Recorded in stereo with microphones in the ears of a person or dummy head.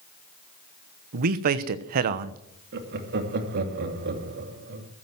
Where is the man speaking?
45° right (ahead or behind), 1.0 m.